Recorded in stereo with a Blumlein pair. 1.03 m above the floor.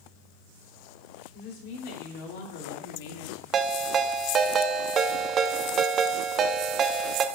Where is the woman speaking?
45° left, 3.5 m; by 3.4 s 55° left, 2 m.